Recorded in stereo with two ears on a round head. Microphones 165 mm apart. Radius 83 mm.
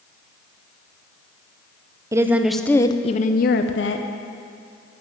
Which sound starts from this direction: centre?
A woman speaking, at 2.1 s.